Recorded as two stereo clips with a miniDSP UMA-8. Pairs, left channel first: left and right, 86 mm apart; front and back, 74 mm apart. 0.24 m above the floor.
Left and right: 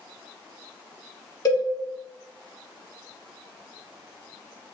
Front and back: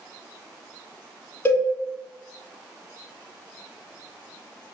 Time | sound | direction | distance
1.4 | a cowbell | 55° left | 1.0 m